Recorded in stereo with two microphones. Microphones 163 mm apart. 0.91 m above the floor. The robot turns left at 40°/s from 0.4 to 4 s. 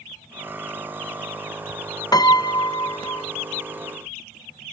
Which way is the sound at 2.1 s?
25° left (ahead or behind).